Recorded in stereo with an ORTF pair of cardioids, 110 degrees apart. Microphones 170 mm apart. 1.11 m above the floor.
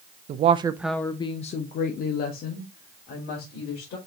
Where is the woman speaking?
50° right, 0.6 m; by 4.0 s 70° left, 2.5 m.